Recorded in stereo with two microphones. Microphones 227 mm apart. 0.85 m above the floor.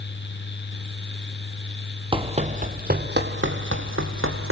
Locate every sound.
2.1 s running footsteps: 25° right (ahead or behind), 1.6 m; by 4.5 s 70° right (ahead or behind), 2.5 m